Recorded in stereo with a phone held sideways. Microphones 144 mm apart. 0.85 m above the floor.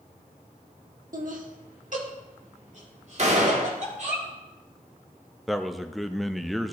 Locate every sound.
1.1 s laughter: 65° right (ahead or behind), 1.3 m; by 4.2 s 55° right (ahead or behind), 3.5 m
3.2 s a gunshot: 50° right (ahead or behind), 1.3 m
5.5 s a man speaking: centre (ahead or behind), 0.5 m